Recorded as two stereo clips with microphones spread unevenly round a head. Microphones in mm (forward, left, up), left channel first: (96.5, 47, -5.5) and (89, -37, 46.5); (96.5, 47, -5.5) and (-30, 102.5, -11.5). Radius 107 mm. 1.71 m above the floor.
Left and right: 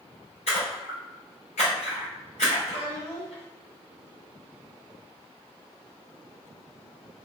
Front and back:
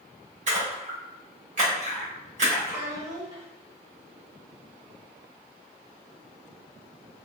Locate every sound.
0.5 s a splash: 145° left, 1.7 m
2.6 s a child speaking: 110° left, 1.8 m